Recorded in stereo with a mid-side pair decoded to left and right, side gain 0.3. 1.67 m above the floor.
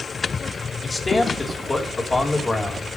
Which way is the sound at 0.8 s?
35° left.